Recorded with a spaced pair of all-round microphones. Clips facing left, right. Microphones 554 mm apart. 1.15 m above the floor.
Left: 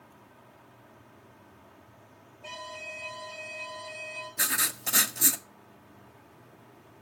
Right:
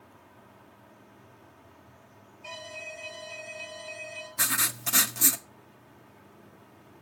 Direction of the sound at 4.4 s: 30° right (ahead or behind).